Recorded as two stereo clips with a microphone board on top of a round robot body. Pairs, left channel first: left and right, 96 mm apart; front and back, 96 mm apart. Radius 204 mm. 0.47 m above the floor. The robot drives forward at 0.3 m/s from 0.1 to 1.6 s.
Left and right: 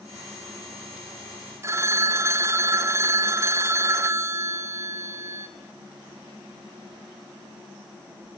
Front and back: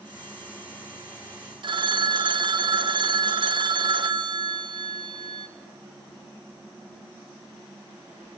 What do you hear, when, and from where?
1.6 s a phone ringing: 150° right, 1.7 m